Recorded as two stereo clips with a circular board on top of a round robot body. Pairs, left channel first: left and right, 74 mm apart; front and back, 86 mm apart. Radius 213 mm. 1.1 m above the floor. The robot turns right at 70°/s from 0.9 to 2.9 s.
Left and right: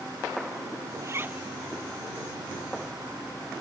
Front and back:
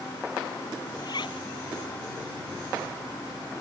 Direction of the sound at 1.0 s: 45° right.